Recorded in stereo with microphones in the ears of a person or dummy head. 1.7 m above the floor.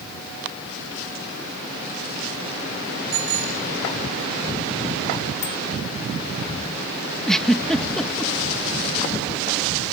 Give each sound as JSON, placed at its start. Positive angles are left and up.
{"t": 3.1, "sound": "a bicycle bell", "side_deg": -80}
{"t": 5.4, "sound": "a bicycle bell", "side_deg": 75}
{"t": 7.3, "sound": "a giggle", "side_deg": 0}